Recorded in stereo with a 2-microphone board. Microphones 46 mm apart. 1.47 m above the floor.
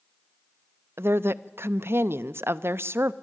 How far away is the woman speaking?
About 0.5 m.